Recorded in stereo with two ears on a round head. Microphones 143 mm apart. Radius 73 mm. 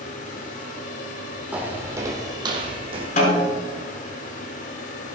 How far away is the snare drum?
About 6 m.